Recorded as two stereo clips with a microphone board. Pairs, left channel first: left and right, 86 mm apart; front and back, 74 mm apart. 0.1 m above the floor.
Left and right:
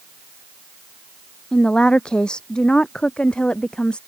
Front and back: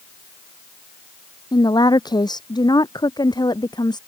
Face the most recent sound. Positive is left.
turn(degrees=15)